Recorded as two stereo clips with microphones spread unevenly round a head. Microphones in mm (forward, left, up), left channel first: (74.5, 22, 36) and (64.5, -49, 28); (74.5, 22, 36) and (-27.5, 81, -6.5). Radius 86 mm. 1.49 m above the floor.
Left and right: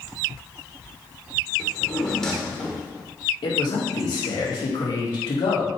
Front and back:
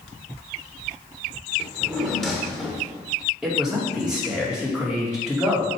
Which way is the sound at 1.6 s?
20° left.